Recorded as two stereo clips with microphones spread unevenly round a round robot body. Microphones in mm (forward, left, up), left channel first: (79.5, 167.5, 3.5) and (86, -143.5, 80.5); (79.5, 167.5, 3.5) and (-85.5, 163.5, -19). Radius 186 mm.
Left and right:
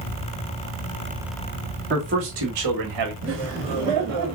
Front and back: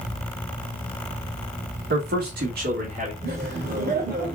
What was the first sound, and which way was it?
A man speaking, 155° right.